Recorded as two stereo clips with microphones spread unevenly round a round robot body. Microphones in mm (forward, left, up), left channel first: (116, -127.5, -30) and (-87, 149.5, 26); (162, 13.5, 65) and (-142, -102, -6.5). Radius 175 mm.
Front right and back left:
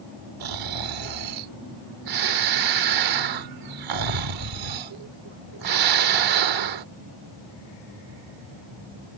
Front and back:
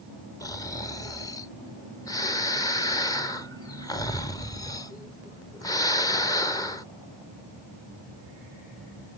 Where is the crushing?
I don't hear crushing.